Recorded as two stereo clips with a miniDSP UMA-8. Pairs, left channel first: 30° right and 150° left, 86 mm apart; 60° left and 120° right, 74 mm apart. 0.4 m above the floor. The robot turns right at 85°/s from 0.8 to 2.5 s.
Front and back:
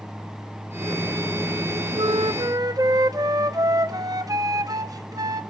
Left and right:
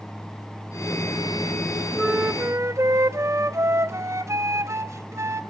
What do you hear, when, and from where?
1.9 s a flute: 145° left, 0.7 m; by 5.4 s 170° right, 0.7 m